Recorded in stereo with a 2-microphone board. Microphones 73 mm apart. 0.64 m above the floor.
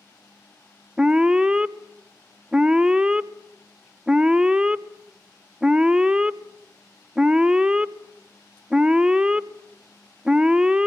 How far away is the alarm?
About 0.5 m.